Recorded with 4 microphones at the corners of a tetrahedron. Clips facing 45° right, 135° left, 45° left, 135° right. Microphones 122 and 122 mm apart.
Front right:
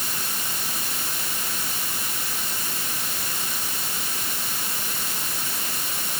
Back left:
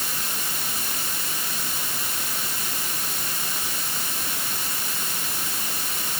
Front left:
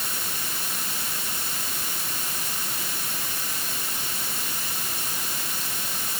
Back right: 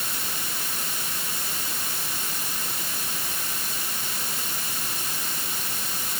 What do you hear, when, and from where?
Only background noise.